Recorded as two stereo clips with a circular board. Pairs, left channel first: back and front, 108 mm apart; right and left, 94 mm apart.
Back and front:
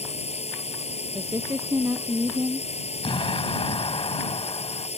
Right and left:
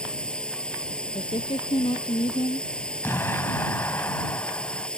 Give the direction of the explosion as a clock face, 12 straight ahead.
5 o'clock.